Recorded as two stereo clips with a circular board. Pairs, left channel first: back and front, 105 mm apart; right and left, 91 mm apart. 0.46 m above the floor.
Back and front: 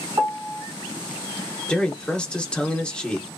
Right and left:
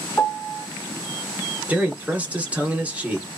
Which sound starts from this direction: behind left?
A man speaking, at 1.7 s.